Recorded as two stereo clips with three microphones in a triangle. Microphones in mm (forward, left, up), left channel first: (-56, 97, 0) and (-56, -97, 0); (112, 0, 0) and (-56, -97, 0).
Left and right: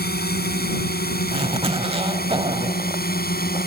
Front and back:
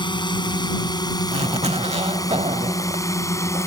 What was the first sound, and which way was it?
A drone, 90° left.